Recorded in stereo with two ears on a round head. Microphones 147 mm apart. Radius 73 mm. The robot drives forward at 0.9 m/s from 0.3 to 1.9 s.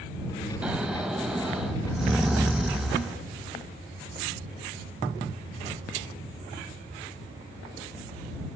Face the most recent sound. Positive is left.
turn(degrees=-5)  # may be behind; listen again after turning